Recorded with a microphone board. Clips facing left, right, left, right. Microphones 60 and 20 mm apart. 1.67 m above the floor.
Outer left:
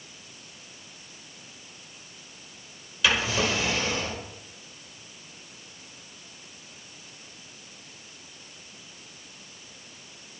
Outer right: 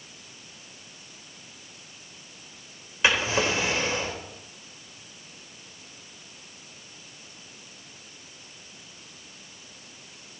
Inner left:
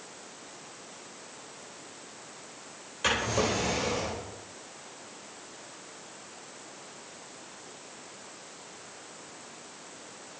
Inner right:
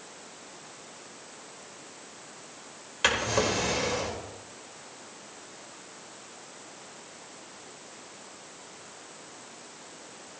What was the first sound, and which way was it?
A drawer, 30° right (ahead or behind).